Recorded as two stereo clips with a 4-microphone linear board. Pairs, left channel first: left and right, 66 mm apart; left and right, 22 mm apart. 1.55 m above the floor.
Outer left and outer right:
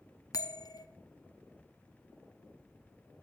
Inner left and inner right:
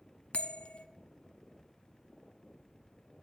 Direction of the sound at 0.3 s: 65° left (ahead or behind).